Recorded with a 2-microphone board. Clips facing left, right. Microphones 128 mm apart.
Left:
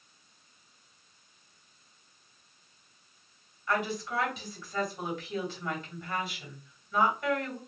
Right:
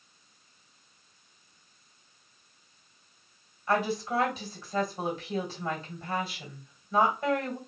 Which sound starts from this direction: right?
A woman speaking, at 3.7 s.